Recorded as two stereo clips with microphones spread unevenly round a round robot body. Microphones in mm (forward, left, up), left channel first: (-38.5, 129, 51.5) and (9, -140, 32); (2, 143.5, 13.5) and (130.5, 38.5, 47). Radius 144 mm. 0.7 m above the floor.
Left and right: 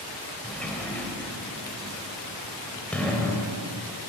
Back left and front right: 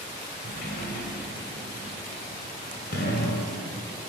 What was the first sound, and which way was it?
A sliding door, 175° right.